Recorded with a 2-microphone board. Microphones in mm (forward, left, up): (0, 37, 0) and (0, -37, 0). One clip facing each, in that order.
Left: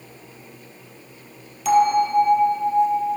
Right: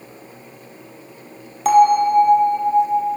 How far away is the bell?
About 0.9 m.